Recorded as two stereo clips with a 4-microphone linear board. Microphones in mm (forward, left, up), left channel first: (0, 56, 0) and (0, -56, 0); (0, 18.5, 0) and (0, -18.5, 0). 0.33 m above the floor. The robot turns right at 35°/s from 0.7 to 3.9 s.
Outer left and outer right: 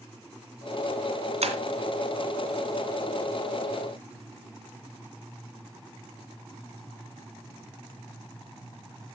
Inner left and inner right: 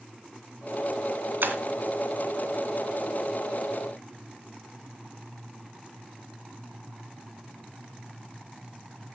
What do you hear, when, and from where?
1.4 s breaking glass: 70° right (ahead or behind), 2 m; by 1.6 s 75° right (ahead or behind), 2 m